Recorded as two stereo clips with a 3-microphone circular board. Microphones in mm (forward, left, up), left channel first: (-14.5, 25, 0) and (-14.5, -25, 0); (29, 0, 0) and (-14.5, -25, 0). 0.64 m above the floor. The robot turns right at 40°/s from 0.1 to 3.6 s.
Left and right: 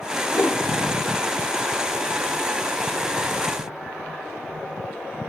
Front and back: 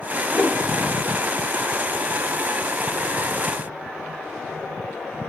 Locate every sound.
0.3 s a whoosh: 90° left, 1.6 m; by 0.6 s 105° left, 1.6 m